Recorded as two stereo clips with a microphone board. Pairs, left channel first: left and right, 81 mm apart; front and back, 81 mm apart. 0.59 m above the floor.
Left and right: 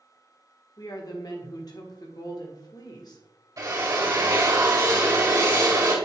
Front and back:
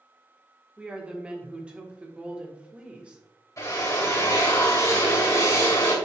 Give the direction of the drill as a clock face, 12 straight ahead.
2 o'clock.